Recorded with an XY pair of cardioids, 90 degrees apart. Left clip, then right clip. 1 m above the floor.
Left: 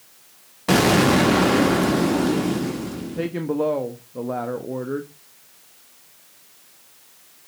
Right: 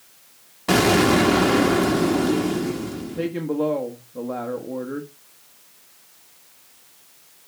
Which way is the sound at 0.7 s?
Straight ahead.